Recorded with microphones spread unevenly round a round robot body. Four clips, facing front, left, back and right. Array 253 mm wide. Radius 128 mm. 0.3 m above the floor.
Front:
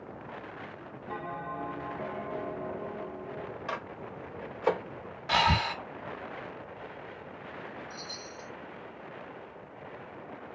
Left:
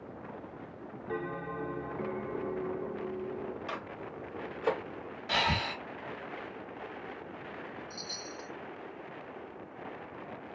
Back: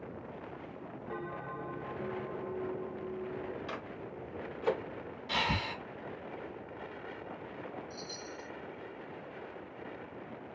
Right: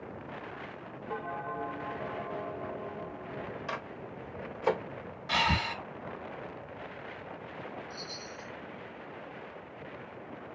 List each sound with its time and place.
1.1 s a bell: 60° left, 1.0 m
3.7 s a microwave: 5° right, 1.2 m
5.3 s breathing: 5° left, 0.8 m
7.9 s a chime: 20° left, 1.4 m